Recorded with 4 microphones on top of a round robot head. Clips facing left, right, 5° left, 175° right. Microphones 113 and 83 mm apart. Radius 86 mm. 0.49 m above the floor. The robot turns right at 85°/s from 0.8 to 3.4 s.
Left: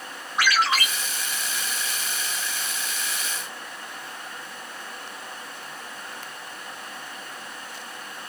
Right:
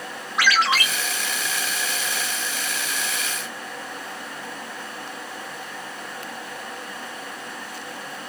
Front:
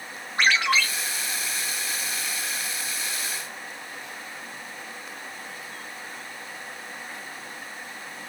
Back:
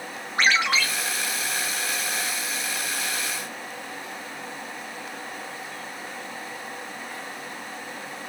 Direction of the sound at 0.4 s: 105° right.